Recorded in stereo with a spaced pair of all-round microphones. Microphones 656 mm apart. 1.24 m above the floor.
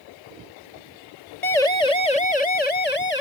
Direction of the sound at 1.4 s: 70° left (ahead or behind).